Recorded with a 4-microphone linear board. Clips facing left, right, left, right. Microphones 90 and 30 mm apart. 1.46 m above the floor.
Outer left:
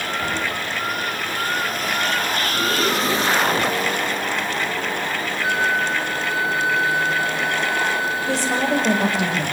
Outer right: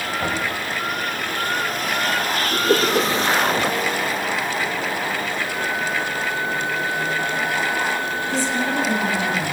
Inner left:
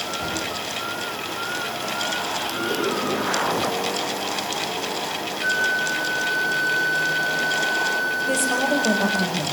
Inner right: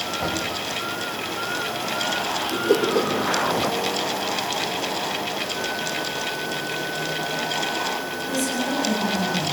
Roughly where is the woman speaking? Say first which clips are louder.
Outer left 2 dB, inner left 2 dB; left.